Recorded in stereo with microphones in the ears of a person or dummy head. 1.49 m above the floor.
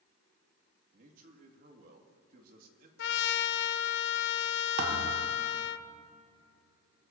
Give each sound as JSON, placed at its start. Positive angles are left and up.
{"t": 0.9, "sound": "a man speaking", "side_deg": -50, "distance_m": 2.0}
{"t": 3.0, "sound": "a trumpet", "side_deg": 65, "distance_m": 0.6}
{"t": 4.8, "sound": "a thud", "side_deg": -60, "distance_m": 1.9}